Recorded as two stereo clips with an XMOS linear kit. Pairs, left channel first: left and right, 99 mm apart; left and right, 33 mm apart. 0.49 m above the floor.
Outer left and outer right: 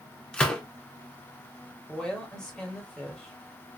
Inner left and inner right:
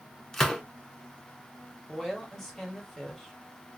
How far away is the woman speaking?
About 1.4 m.